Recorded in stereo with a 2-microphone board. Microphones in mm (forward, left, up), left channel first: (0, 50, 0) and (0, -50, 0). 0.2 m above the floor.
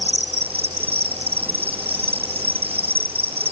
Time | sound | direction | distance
0.0 | an insect | 85° right | ?